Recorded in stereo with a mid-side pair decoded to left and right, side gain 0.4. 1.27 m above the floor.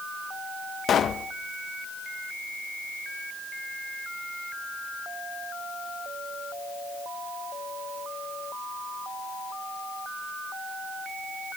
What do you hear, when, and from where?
0.9 s a pop: 60° left, 1.0 m